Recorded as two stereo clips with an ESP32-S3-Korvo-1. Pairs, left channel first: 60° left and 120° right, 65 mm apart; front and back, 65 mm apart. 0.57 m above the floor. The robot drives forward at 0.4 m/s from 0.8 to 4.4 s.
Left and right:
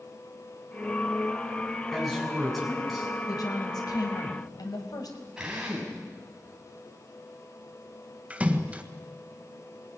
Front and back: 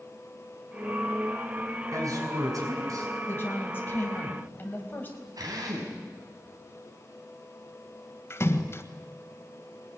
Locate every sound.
1.9 s a man speaking: 150° left, 6 m
3.3 s a woman speaking: 55° left, 4 m; by 5.3 s 60° left, 4 m
5.4 s a drill: 160° left, 5.5 m
8.3 s a splash: 50° right, 1.4 m